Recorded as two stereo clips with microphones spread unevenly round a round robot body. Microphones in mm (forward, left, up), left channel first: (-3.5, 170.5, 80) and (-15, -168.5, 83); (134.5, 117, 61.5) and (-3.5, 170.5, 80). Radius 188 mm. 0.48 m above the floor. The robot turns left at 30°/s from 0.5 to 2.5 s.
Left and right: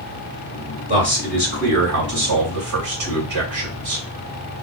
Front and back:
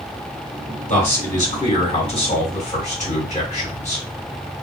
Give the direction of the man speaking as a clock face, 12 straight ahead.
1 o'clock.